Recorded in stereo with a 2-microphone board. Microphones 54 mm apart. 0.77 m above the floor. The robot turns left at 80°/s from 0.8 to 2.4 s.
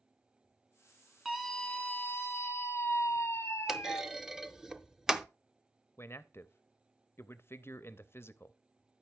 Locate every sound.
1.2 s a scream: 175° left, 1.4 m; by 4.0 s 85° left, 1.4 m
3.7 s a clunk: 10° right (ahead or behind), 0.5 m
6.0 s a man speaking: 45° left (ahead or behind), 0.6 m